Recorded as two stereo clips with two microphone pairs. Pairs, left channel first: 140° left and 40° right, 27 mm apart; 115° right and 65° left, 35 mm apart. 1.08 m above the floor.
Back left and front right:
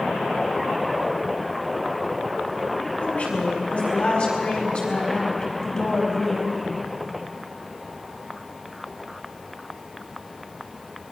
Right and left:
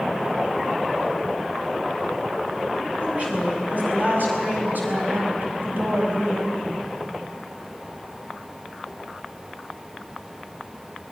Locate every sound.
3.0 s a woman speaking: 110° left, 7.5 m; by 6.9 s 60° left, 5 m